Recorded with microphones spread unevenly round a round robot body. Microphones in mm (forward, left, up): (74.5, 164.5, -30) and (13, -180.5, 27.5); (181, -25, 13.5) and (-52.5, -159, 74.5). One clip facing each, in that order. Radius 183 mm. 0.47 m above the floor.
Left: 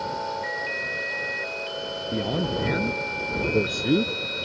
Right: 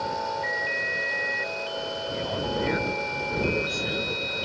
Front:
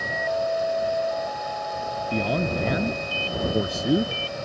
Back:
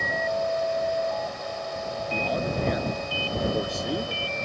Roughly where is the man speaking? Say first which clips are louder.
Left 4 dB, front 4 dB; ahead left.